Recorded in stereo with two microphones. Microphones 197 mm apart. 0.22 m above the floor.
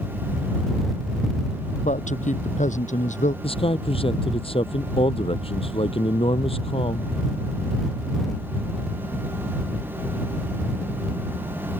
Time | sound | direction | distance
1.8 | a man speaking | 40° left (ahead or behind) | ?
3.4 | a man speaking | 30° left (ahead or behind) | ?